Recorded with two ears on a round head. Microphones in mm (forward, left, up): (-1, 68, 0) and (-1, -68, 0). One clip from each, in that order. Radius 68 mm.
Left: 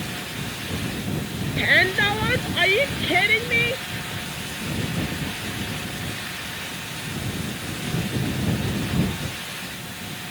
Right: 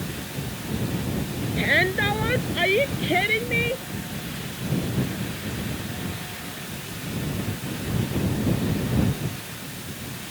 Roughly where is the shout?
Left.